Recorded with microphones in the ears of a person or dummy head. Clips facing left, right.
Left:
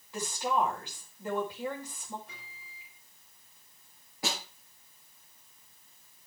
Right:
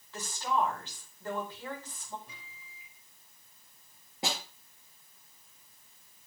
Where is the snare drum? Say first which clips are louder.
Even; 20° right (ahead or behind), 5 m.